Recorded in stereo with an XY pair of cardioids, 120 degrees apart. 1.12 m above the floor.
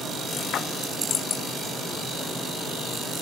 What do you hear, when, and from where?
0.5 s a splash: 55° left, 0.5 m